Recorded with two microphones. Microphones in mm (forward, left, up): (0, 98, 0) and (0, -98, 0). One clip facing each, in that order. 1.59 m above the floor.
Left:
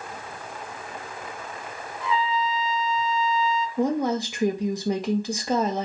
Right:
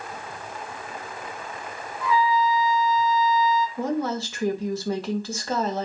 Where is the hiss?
No hiss in this recording.